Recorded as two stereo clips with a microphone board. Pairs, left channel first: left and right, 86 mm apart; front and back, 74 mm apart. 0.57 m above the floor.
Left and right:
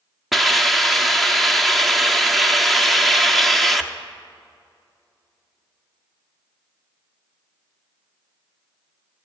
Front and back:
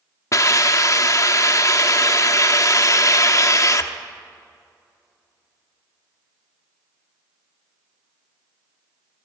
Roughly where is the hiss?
Ahead.